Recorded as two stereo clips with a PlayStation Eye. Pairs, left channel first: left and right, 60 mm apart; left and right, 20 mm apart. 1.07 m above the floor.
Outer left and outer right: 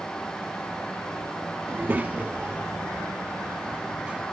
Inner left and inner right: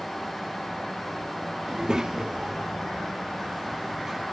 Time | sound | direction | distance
1.7 | a child speaking | 40° right (ahead or behind) | ?